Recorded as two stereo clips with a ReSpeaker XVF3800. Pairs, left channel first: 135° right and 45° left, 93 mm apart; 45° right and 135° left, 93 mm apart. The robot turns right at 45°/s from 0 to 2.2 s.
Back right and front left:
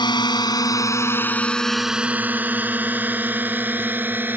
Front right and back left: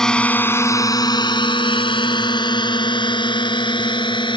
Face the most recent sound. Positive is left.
turn(degrees=-20)